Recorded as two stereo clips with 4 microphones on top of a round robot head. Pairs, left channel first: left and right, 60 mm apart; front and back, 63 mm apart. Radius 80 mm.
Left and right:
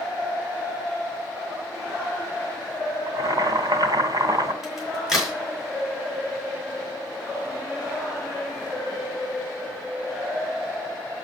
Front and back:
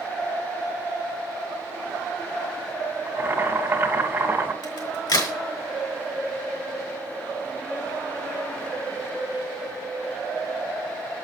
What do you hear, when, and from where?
3.1 s boiling: 110° right, 3 m
4.6 s a crack: 5° right, 5 m